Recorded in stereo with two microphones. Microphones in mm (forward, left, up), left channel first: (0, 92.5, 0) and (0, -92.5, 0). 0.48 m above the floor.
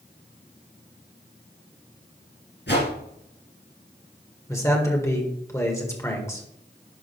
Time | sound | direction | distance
2.7 | a whoosh | 75° left (ahead or behind) | 3.5 m
4.5 | a man speaking | 15° left (ahead or behind) | 1.9 m